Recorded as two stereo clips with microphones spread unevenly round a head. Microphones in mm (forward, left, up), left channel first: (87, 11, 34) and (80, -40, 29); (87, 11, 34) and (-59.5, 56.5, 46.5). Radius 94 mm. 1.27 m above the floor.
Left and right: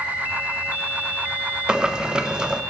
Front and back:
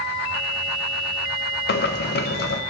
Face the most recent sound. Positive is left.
turn(degrees=-25)